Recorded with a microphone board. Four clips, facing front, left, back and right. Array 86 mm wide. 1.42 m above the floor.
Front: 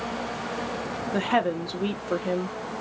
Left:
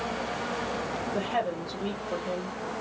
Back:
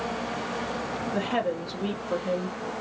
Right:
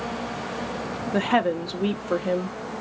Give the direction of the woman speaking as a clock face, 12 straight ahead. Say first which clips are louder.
Right 9 dB, front 4 dB; 2 o'clock.